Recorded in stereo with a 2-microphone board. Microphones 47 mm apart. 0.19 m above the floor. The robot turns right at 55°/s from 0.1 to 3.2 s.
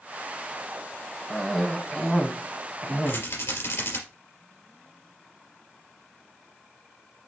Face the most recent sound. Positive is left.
turn(degrees=65)  # may be behind; listen again after turning